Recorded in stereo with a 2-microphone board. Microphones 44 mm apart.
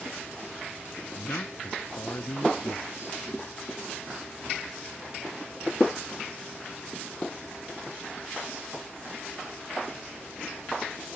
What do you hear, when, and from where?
1.1 s a man speaking: 65° left (ahead or behind); by 3.2 s 70° left (ahead or behind)